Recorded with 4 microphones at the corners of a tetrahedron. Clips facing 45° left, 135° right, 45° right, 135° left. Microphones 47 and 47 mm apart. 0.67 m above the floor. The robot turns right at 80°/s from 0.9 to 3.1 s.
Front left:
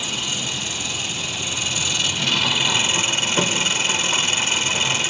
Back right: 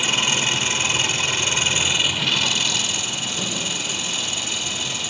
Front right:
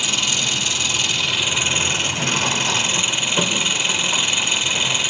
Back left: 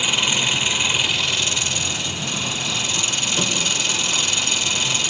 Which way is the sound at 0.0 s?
160° right.